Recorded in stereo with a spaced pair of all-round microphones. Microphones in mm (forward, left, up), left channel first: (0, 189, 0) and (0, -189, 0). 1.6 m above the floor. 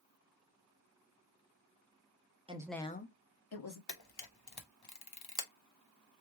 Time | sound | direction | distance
2.5 | a woman speaking | 15° right (ahead or behind) | 1.0 m
3.9 | a camera shutter | 75° left (ahead or behind) | 0.9 m